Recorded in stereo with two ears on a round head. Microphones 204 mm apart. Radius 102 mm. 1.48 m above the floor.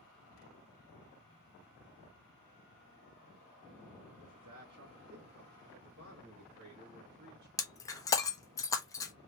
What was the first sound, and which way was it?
A man speaking, 70° right (ahead or behind).